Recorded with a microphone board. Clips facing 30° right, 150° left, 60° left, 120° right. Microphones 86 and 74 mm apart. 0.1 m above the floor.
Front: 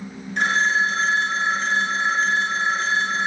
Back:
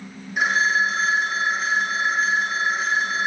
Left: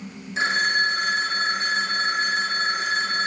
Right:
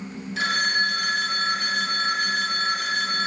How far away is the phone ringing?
About 1.1 m.